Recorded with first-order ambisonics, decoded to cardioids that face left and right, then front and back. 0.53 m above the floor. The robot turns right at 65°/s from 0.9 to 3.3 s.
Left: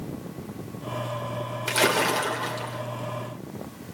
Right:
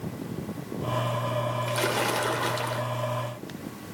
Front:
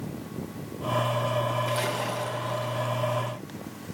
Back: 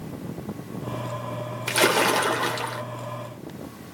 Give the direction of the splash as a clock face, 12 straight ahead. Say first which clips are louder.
Left 7 dB, back 8 dB; 7 o'clock.